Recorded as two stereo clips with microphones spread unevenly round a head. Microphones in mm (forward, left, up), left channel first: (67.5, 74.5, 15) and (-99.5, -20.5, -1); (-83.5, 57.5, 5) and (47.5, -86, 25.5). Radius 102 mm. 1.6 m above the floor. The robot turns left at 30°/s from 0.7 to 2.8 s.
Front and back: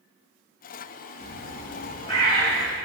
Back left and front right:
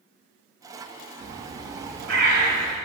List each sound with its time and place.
1.2 s a bird: 10° right, 6.5 m; by 2.8 s 60° right, 6.5 m